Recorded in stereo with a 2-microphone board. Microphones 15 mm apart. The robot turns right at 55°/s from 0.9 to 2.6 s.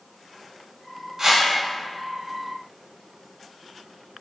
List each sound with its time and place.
1.2 s a whoosh: 30° right (ahead or behind), 0.6 m; by 1.5 s 45° right (ahead or behind), 0.6 m